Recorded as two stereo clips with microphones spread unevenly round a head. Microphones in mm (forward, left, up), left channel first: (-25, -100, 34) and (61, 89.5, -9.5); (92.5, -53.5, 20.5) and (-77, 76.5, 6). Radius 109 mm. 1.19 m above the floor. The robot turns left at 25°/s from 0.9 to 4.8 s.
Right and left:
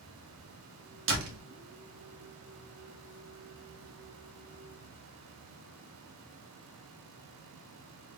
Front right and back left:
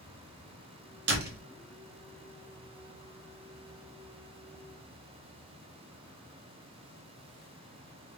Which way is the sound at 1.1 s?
105° left.